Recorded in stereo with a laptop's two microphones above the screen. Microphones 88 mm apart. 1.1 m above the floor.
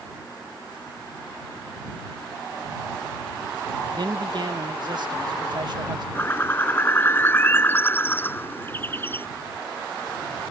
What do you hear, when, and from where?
4.0 s a man speaking: 55° right (ahead or behind)
6.2 s a bird: 25° left (ahead or behind)